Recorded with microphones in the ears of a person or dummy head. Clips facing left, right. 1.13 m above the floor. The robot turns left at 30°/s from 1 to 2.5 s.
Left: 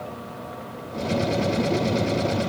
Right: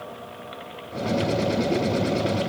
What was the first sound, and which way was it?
Only background noise.